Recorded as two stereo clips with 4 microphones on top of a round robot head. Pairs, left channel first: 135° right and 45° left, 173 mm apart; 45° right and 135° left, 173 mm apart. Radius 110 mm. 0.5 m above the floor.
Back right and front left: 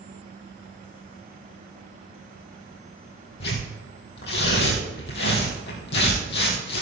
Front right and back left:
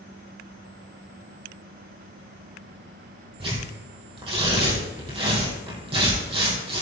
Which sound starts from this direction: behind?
Tearing paper, at 3.4 s.